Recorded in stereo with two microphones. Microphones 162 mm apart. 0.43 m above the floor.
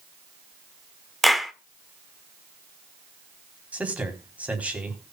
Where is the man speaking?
10° right (ahead or behind), 3.5 m.